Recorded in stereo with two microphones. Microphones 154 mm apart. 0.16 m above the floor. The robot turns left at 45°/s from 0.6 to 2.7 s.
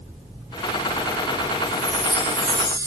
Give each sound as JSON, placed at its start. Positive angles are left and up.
{"t": 1.7, "sound": "a chime", "azimuth_deg": -105, "distance_m": 0.9}